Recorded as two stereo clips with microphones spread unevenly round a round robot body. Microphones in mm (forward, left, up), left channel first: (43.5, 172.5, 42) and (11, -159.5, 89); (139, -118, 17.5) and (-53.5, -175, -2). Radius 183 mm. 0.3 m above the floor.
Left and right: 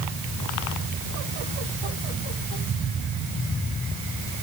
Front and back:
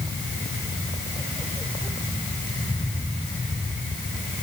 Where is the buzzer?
No buzzer in this recording.